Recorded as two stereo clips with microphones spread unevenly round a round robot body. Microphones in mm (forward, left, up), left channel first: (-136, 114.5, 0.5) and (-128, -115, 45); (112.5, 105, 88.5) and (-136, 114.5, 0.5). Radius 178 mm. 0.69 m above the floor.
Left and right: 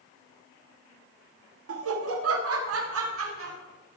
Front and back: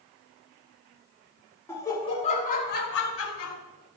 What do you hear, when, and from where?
1.7 s laughter: 95° right, 1.2 m; by 3.6 s 45° right, 1.3 m